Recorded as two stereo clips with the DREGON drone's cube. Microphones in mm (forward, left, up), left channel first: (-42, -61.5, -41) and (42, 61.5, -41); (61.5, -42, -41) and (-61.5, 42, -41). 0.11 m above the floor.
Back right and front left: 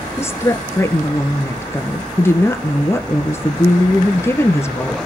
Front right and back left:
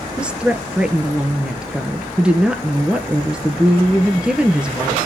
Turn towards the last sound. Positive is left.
turn(degrees=-145)